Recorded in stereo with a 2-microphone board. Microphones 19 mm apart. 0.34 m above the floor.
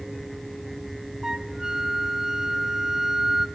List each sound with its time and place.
1.2 s a flute: 35° right (ahead or behind), 0.8 m